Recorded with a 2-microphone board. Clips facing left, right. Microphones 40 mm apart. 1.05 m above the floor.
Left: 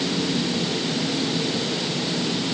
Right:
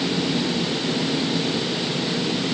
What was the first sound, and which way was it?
Only background noise.